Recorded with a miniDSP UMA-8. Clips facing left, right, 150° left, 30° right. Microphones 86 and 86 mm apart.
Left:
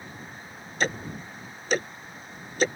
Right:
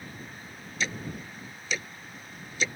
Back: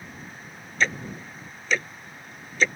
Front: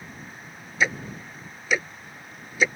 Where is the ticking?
50° left.